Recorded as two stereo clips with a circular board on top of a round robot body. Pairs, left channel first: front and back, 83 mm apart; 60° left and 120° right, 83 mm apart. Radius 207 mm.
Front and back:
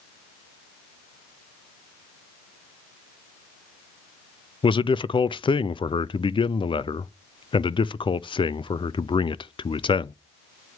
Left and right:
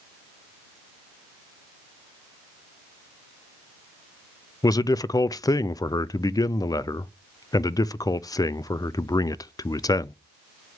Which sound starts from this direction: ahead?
A man speaking, at 4.6 s.